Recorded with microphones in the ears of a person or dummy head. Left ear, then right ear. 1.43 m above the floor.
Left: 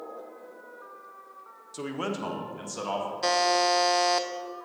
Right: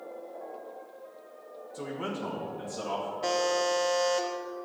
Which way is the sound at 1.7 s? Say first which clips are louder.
Left 3 dB; 85° left.